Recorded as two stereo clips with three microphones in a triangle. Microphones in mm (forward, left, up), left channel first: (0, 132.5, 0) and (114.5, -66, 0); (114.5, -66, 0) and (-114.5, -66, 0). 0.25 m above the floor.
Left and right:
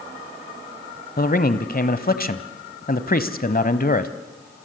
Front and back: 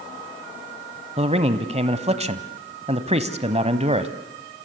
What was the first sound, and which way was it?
A man speaking, 135° left.